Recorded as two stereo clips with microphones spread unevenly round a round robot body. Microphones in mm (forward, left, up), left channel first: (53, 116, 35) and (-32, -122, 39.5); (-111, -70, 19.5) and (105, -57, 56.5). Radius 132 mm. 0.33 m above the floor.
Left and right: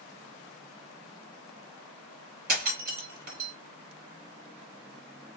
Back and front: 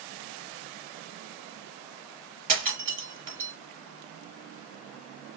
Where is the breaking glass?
50° right, 1.4 m.